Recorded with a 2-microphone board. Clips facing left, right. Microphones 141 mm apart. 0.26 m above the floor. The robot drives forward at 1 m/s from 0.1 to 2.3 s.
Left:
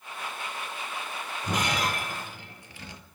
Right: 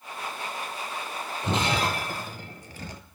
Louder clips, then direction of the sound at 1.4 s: Right 3 dB; 25° right (ahead or behind).